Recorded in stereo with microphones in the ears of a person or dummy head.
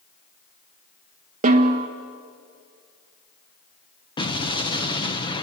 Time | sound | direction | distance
1.4 | a snare drum | 40° right (ahead or behind) | 1.4 m
4.2 | an explosion | 25° left (ahead or behind) | 1.3 m